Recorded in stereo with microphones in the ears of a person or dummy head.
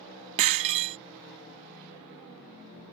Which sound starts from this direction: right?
Breaking glass, at 0.4 s.